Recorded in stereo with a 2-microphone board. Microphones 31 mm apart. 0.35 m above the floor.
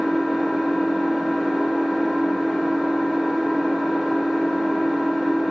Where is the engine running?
5° right (ahead or behind), 1.4 m.